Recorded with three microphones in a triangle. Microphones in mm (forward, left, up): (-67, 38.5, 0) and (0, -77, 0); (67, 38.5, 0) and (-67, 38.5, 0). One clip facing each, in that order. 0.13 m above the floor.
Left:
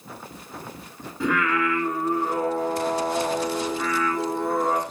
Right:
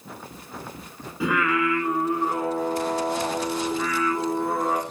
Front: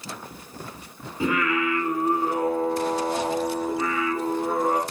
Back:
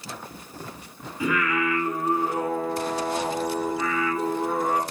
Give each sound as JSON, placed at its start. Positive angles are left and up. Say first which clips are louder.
{"t": 1.2, "sound": "singing", "louder": "even, front 1 dB", "azimuth_deg": 25, "distance_m": 0.7}